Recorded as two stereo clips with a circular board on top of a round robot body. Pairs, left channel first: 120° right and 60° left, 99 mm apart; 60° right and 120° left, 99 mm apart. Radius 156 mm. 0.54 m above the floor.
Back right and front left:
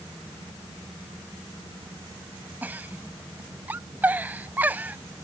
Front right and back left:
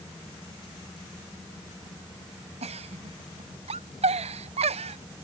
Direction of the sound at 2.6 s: 135° left.